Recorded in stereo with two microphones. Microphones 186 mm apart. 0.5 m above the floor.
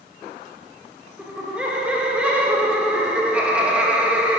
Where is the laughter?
5° right (ahead or behind), 1.1 m.